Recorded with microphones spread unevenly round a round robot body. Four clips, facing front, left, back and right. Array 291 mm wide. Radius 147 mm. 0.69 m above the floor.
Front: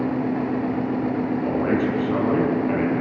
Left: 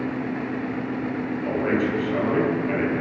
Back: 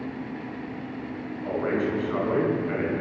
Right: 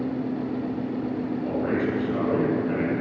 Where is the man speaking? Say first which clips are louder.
Left 3 dB, front 2 dB; 10° left, 6.5 m.